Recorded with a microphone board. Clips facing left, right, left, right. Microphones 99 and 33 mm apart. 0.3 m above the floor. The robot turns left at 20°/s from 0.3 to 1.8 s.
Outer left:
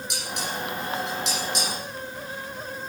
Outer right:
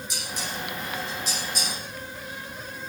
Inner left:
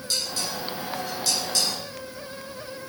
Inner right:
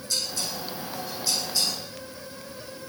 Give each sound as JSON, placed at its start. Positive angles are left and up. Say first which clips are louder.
{"t": 0.1, "sound": "dishes clattering", "louder": "outer left 3 dB, inner left 2 dB", "side_deg": 65, "distance_m": 9.0}